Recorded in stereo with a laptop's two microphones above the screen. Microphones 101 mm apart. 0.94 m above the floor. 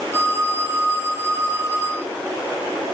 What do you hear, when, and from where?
0.1 s a phone ringing: 25° right (ahead or behind), 5 m